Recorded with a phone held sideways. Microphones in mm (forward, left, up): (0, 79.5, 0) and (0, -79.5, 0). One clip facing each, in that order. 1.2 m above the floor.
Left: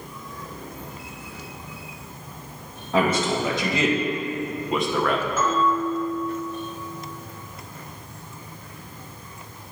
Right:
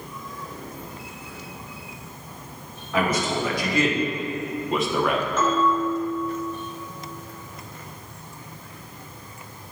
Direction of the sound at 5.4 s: 5° left (ahead or behind).